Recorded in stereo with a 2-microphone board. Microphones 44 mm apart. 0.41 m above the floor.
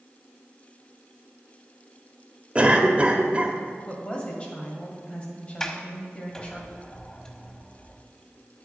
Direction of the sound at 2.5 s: 25° right (ahead or behind).